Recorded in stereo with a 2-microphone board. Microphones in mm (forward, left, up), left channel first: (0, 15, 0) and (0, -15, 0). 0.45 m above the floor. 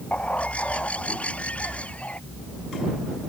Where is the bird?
45° left (ahead or behind).